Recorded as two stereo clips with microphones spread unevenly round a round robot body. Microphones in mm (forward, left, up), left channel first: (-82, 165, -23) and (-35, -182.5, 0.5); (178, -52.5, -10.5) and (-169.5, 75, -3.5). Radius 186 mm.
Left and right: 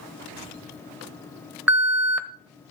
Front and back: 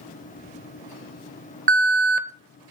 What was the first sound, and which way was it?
An alarm, 170° right.